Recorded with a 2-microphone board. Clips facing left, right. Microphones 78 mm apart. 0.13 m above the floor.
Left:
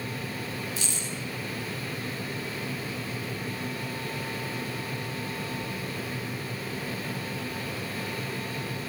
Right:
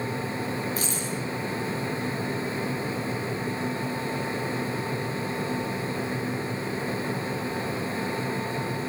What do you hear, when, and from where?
0.8 s keys jangling: 40° right (ahead or behind), 9.5 m